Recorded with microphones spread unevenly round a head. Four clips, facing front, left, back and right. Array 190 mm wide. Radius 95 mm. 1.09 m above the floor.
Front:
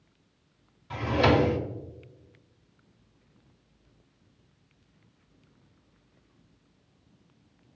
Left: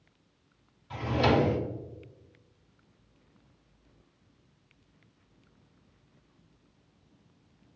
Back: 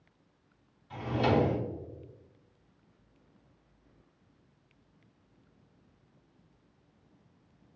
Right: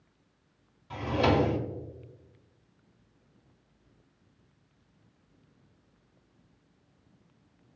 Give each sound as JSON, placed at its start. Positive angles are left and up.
{"t": 0.9, "sound": "a drawer", "azimuth_deg": -20, "distance_m": 0.7}